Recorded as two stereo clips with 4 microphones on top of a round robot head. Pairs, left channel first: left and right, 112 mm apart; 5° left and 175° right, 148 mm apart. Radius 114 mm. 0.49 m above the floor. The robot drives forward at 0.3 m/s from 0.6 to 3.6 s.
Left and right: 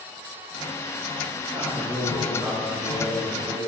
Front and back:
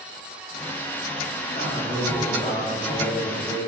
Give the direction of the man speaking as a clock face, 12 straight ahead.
1 o'clock.